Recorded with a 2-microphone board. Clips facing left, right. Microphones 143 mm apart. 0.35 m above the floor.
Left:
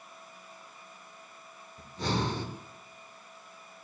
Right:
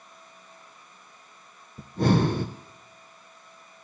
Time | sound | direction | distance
1.8 | breathing | 55° right (ahead or behind) | 0.9 m